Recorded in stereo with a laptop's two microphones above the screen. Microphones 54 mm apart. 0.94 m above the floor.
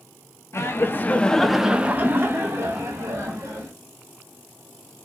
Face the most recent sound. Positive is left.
turn(degrees=-65)  # may be behind; listen again after turning